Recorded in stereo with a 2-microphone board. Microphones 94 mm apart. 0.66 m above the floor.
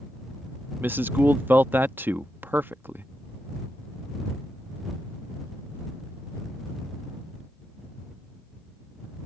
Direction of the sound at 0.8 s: 20° right (ahead or behind).